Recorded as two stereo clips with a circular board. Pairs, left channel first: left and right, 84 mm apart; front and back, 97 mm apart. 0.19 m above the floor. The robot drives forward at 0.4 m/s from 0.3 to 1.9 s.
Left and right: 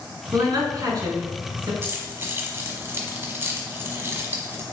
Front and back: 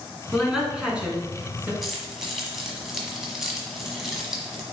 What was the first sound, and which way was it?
A woman speaking, 90° right.